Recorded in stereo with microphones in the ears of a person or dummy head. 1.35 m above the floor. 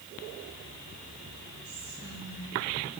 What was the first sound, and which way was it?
Whispering, 65° right (ahead or behind).